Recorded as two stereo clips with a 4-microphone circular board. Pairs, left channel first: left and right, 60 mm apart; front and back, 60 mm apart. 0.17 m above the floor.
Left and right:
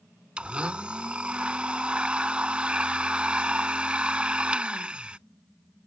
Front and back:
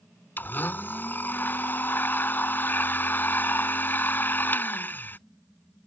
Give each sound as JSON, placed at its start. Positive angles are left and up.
{"t": 0.4, "sound": "a blender", "azimuth_deg": -30}